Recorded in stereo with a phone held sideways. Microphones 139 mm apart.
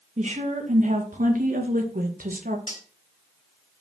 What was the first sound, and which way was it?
A woman speaking, 60° right (ahead or behind).